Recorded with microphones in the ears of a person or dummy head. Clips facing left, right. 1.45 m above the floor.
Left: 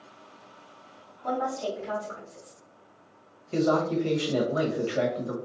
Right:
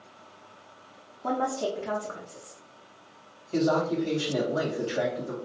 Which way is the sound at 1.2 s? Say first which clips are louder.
Right 1 dB; 50° right (ahead or behind).